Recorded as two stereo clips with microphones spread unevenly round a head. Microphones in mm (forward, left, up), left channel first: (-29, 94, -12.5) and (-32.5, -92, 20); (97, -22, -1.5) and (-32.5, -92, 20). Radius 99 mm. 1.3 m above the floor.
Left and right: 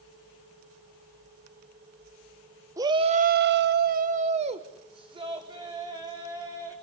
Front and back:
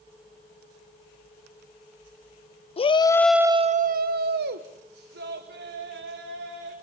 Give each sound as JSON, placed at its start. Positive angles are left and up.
{"t": 2.8, "sound": "a shout", "azimuth_deg": -15, "distance_m": 0.9}